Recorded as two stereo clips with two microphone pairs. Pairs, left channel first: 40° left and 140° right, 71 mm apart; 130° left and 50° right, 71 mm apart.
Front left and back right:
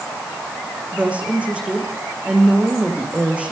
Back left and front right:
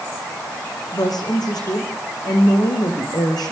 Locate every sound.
0.9 s a woman speaking: 150° left, 6 m